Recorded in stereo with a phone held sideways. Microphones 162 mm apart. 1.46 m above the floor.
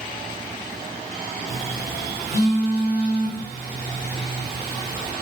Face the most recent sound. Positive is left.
turn(degrees=80)